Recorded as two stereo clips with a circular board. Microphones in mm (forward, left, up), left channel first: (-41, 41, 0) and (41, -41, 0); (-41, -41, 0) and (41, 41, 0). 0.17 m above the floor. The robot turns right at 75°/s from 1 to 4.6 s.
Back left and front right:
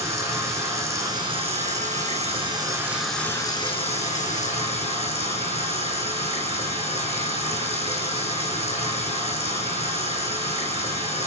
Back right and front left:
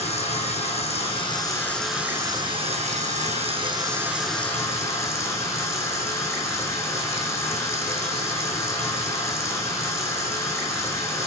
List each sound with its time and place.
0.0 s running water: 110° right, 3.5 m; by 11.3 s 160° left, 3.5 m